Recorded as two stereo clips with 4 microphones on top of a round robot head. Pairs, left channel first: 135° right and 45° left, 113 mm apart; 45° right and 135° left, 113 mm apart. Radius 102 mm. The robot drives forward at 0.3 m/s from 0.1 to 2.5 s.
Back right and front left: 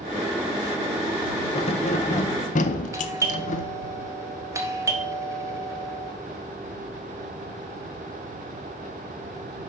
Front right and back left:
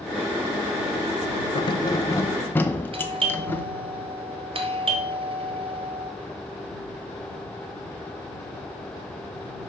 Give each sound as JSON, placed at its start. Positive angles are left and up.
{"t": 1.6, "sound": "keys jangling", "azimuth_deg": -95, "distance_m": 0.6}
{"t": 2.9, "sound": "a doorbell", "azimuth_deg": 105, "distance_m": 1.8}